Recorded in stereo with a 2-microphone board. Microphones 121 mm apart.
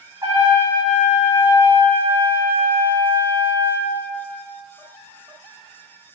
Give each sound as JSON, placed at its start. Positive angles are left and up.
{"t": 0.2, "sound": "a trumpet", "side_deg": -30, "distance_m": 4.0}